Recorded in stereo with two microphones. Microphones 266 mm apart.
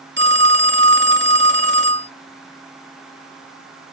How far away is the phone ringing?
About 0.6 m.